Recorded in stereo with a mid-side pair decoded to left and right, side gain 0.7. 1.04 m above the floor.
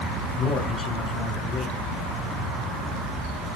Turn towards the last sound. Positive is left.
turn(degrees=35)